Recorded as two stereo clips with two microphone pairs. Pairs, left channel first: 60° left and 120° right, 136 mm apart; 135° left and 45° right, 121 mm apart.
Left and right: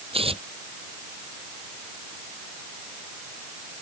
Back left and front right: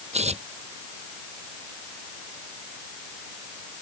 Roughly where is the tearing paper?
Right.